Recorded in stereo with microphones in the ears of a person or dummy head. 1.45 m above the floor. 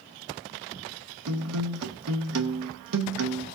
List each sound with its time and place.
1.3 s a guitar: 75° right (ahead or behind), 0.8 m